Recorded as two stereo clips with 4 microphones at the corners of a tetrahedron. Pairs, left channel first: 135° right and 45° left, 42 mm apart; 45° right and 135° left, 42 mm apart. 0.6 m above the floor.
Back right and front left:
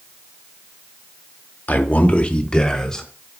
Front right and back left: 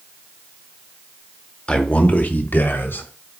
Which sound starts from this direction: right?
A man speaking, at 1.7 s.